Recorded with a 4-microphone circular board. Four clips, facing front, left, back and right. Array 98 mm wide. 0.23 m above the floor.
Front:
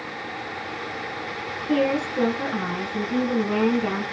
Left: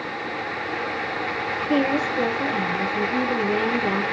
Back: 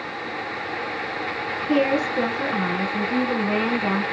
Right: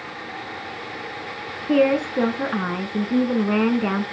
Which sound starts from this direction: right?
A woman speaking, at 1.7 s.